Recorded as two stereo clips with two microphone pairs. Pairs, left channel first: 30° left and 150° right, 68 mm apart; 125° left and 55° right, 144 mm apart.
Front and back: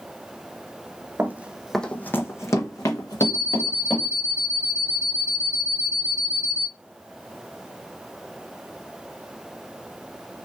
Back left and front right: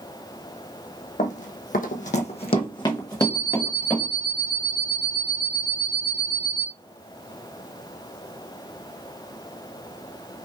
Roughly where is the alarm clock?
Left.